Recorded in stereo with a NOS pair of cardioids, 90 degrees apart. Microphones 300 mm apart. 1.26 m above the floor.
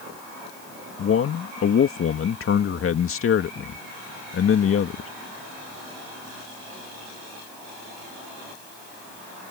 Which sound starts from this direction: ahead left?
A man speaking, at 1.0 s.